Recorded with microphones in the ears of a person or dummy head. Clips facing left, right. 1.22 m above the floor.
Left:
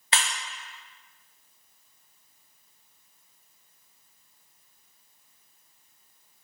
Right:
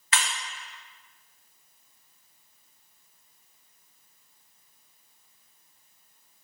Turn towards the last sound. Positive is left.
turn(degrees=30)  # may be behind; listen again after turning